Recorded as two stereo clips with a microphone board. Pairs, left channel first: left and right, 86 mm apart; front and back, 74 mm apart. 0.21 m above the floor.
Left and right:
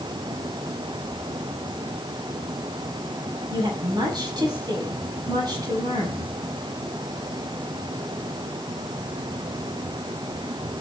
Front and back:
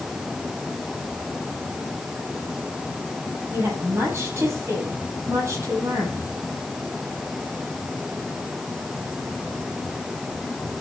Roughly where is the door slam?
I don't hear a door slam.